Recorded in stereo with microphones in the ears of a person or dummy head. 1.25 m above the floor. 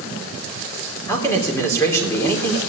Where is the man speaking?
20° left (ahead or behind), 3.5 m.